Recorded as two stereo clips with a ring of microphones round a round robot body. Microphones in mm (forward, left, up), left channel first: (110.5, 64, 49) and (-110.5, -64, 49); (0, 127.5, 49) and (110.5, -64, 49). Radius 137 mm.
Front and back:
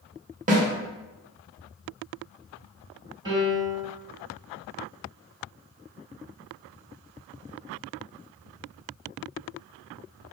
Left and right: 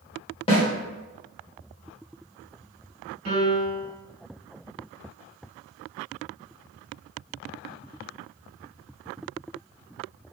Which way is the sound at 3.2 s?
75° right.